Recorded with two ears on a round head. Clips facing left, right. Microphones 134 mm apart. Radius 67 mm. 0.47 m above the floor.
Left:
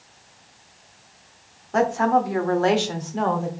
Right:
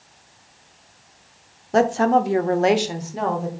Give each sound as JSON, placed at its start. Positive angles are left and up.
{"t": 1.7, "sound": "a woman speaking", "side_deg": -35, "distance_m": 0.9}